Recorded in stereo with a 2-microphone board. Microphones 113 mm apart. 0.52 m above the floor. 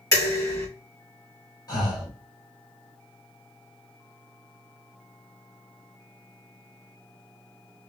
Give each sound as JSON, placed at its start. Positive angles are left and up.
{"t": 0.1, "sound": "dishes clattering", "side_deg": 30, "distance_m": 1.9}
{"t": 1.7, "sound": "breathing", "side_deg": 35, "distance_m": 1.5}